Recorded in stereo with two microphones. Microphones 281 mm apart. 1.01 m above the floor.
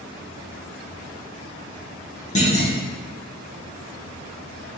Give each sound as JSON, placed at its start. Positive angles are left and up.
{"t": 2.4, "sound": "a clunk", "side_deg": 25, "distance_m": 1.0}